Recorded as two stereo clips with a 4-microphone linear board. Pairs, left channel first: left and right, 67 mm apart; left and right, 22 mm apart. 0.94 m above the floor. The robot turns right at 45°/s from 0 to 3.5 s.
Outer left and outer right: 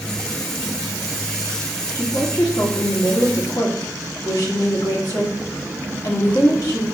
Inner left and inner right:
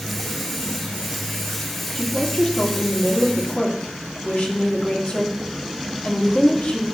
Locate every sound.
1.9 s a woman speaking: 30° left, 2 m; by 6.8 s 100° left, 2 m